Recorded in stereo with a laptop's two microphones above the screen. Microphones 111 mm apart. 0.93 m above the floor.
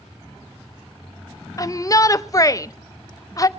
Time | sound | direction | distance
1.6 | a shout | 30° left (ahead or behind) | 0.6 m